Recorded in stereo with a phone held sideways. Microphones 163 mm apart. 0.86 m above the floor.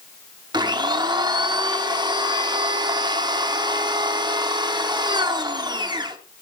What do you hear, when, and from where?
0.5 s a blender: 25° right (ahead or behind), 0.9 m